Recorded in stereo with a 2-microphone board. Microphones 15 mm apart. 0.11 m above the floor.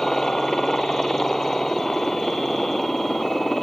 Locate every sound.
0.0 s a helicopter: 25° left (ahead or behind)